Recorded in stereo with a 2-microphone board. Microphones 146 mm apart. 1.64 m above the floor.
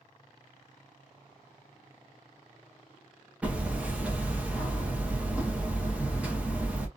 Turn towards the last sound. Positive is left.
turn(degrees=-10)  # may be behind; listen again after turning